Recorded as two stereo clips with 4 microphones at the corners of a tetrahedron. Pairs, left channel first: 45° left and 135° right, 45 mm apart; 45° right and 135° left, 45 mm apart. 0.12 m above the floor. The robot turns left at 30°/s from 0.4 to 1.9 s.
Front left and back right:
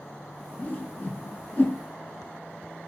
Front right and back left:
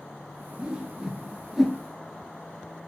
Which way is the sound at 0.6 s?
80° left.